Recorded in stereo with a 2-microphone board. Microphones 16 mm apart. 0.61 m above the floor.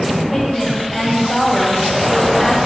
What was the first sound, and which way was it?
A woman speaking, 5° left (ahead or behind).